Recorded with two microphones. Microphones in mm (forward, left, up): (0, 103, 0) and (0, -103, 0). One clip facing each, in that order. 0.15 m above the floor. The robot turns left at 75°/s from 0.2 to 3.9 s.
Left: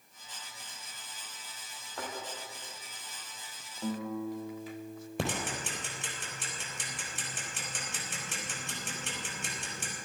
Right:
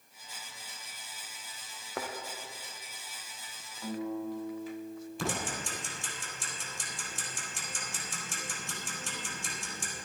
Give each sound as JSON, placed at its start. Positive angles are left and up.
{"t": 1.9, "sound": "a thud", "side_deg": -80, "distance_m": 2.5}
{"t": 3.8, "sound": "a guitar", "side_deg": 25, "distance_m": 4.0}
{"t": 5.2, "sound": "ticking", "side_deg": 70, "distance_m": 4.0}